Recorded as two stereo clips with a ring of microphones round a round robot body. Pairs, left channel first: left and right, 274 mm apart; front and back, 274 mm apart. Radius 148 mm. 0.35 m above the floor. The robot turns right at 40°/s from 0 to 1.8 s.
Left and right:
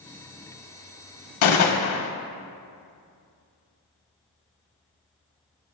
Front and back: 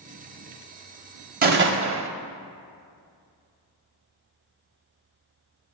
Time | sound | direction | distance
1.4 | a gunshot | 120° left | 0.5 m